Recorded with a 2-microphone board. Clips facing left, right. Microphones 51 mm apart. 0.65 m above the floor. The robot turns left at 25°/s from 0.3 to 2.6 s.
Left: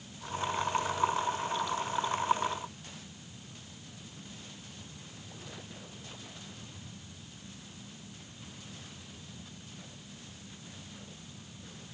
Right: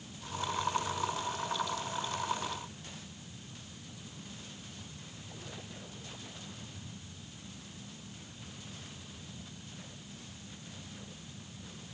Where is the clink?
No clink in this recording.